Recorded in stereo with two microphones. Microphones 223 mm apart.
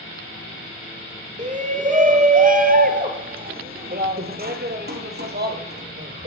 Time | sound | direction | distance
1.4 | a shout | 35° right (ahead or behind) | 3 m